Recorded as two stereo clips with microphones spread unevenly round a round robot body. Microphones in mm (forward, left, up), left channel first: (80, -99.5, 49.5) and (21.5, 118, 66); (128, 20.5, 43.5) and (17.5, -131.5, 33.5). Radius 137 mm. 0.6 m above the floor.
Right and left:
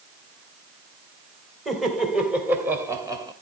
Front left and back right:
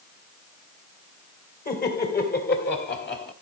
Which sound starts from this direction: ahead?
Laughter, at 1.6 s.